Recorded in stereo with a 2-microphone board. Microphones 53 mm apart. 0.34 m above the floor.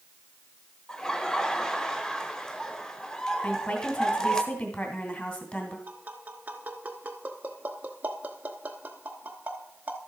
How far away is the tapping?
About 0.9 m.